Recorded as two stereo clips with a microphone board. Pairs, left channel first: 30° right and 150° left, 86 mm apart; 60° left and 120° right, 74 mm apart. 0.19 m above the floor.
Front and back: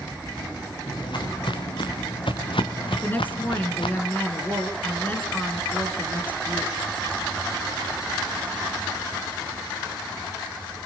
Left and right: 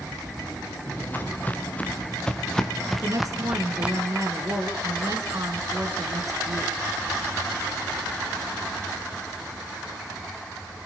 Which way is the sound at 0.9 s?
5° right.